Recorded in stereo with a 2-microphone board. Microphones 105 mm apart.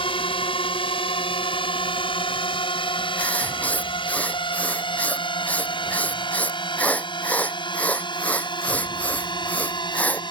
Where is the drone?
60° left (ahead or behind); by 10.3 s 45° left (ahead or behind).